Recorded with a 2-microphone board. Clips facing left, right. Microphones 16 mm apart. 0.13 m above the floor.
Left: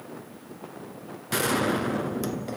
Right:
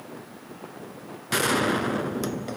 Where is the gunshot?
20° right (ahead or behind), 1.3 m.